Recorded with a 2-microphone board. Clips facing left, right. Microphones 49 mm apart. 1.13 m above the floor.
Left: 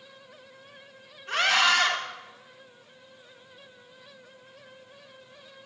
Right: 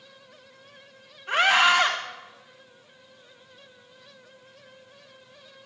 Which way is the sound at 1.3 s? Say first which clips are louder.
Right 3 dB; 20° right (ahead or behind).